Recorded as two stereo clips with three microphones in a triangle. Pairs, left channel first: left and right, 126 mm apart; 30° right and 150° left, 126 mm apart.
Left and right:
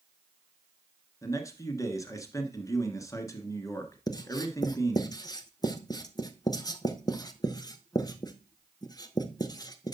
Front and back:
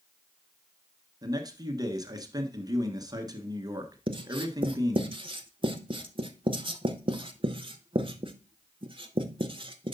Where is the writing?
130° left, 0.7 m.